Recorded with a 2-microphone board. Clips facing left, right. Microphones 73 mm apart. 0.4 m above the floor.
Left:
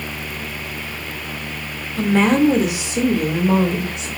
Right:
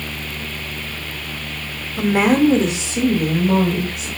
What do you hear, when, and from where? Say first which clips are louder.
2.0 s a woman speaking: even; 15° right (ahead or behind), 0.8 m; by 4.1 s 30° left (ahead or behind), 1.5 m